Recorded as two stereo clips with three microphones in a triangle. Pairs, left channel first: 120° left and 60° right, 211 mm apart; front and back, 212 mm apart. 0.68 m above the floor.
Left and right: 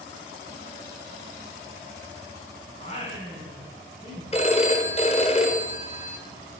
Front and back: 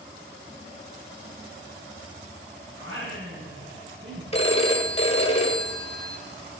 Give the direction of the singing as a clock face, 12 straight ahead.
6 o'clock.